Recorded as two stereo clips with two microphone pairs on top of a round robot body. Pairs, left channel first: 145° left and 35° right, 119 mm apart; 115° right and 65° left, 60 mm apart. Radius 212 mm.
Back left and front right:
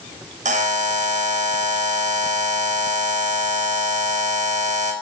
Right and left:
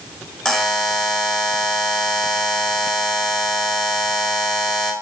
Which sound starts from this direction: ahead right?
A buzzer, at 0.5 s.